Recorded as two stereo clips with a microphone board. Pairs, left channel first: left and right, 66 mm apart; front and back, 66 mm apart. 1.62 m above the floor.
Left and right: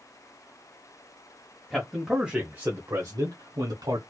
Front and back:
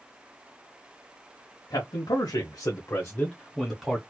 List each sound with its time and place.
1.7 s a man speaking: 5° left, 1.4 m; by 4.0 s 95° right, 1.3 m